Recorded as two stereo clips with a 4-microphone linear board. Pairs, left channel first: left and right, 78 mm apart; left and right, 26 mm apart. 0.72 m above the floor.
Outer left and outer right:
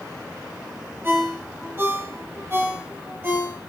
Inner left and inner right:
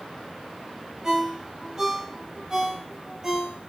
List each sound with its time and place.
1.0 s a ringtone: 25° right (ahead or behind), 7.5 m